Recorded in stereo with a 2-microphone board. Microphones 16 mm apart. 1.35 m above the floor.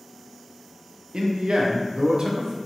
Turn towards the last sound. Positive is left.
turn(degrees=-55)  # may be behind; listen again after turning